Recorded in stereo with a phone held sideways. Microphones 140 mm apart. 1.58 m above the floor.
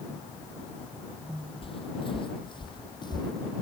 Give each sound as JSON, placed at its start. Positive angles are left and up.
{"t": 1.6, "sound": "footsteps", "side_deg": 40}